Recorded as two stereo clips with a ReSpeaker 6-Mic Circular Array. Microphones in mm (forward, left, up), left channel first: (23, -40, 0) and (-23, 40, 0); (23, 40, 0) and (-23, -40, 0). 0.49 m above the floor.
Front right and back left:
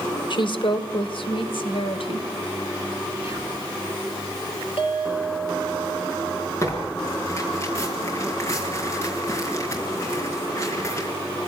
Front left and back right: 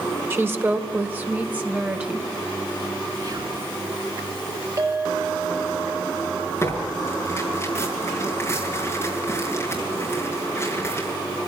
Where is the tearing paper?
Straight ahead, 5 m.